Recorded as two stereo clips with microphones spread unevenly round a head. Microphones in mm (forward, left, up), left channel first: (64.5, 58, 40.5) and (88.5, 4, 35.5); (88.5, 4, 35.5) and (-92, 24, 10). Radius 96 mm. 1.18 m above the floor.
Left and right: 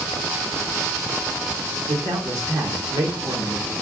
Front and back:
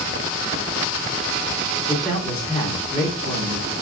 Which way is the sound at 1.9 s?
95° right.